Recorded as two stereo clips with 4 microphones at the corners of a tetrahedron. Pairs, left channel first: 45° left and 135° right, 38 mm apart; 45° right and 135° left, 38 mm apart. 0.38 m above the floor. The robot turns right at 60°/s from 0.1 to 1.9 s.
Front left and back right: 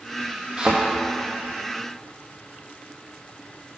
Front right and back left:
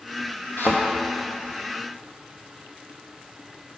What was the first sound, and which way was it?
A thud, 75° right.